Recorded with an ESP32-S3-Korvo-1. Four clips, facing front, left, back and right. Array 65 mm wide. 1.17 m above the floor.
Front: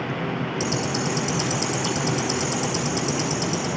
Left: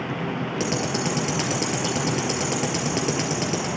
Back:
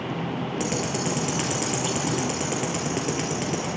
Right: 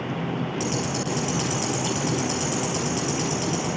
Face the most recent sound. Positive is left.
turn(degrees=110)